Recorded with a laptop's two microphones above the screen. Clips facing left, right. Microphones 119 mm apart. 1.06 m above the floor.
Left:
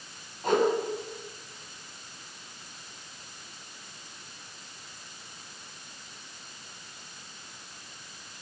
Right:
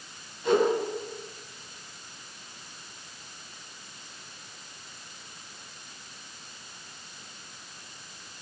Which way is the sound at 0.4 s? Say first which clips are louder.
Right 2 dB; 50° left (ahead or behind).